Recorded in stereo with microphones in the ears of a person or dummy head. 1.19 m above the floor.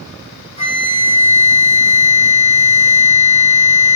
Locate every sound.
0.6 s a flute: 40° left (ahead or behind), 3 m